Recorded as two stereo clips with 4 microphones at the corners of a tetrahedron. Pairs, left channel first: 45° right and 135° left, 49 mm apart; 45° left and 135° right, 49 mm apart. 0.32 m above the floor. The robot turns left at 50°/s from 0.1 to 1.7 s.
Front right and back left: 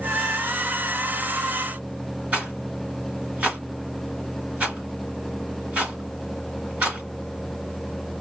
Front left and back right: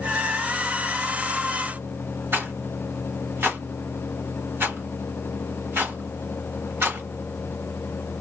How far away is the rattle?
About 1.4 m.